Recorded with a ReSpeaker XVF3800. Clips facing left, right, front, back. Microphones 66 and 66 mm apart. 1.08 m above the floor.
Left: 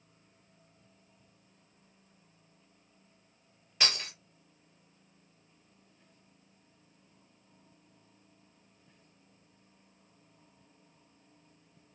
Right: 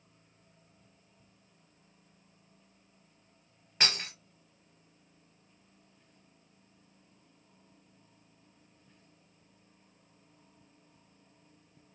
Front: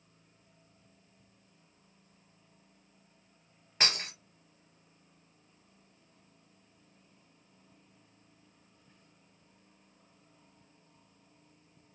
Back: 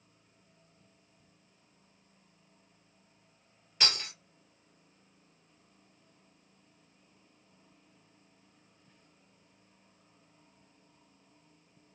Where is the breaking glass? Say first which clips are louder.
Right 1 dB, front 1 dB; 40° right, 2.0 m.